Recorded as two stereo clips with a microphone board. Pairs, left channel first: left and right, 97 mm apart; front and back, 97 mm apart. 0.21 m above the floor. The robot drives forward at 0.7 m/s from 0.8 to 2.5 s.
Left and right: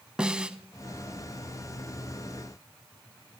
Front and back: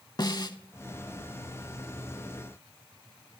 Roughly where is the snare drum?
Ahead.